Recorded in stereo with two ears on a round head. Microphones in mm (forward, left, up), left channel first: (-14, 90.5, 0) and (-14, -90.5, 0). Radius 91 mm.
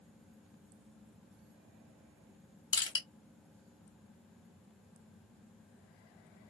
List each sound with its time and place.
2.7 s crushing: 20° left (ahead or behind), 1.3 m